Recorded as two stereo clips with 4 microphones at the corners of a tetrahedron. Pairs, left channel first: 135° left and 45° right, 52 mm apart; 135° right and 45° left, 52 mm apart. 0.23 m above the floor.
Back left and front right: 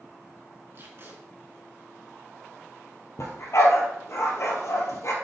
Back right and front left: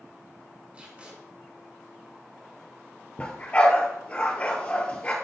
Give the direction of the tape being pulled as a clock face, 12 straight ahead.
12 o'clock.